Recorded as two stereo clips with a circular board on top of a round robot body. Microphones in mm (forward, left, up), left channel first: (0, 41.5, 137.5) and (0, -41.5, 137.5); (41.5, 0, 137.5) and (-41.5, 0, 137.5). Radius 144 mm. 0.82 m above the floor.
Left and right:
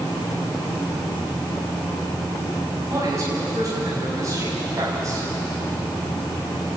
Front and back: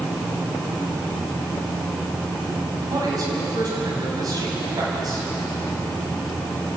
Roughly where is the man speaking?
Behind right.